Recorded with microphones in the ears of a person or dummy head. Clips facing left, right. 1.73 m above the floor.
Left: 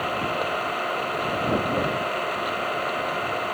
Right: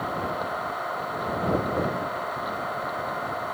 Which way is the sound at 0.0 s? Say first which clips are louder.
Left 3 dB; 45° left (ahead or behind).